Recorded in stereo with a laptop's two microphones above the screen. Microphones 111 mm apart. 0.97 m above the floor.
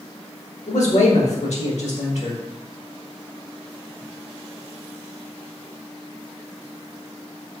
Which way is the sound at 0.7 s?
80° left.